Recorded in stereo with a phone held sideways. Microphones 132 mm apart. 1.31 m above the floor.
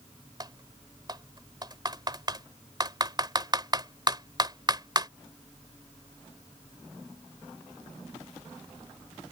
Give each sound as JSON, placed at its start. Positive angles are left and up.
{"t": 0.4, "sound": "typing on a keyboard", "side_deg": -30}